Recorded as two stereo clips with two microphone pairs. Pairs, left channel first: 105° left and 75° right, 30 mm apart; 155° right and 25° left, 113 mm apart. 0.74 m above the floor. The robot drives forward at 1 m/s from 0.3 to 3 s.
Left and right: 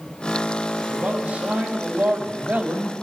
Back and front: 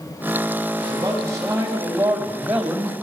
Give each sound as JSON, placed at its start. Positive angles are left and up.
{"t": 0.8, "sound": "a man speaking", "azimuth_deg": -35, "distance_m": 4.0}